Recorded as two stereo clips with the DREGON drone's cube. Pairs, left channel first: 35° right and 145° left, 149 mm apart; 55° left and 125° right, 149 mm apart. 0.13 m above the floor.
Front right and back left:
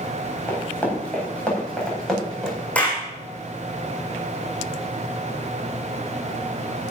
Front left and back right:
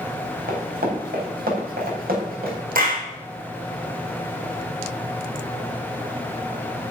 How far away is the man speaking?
No man speaking in this recording.